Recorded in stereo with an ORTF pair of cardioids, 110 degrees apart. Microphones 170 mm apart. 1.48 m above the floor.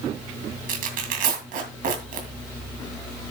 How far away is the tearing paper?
About 2.5 m.